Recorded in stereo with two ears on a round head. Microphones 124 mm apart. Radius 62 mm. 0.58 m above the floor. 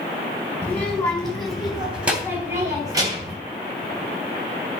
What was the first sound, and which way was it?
A child speaking, 10° left (ahead or behind).